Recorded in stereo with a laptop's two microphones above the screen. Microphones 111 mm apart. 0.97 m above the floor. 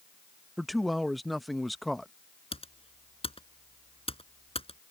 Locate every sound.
0.6 s a man speaking: centre (ahead or behind)
2.5 s typing on a keyboard: 55° left (ahead or behind)